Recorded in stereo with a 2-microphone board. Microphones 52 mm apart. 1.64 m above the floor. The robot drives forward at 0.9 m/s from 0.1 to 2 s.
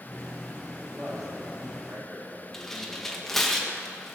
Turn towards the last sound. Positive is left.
turn(degrees=5)  # may be behind; listen again after turning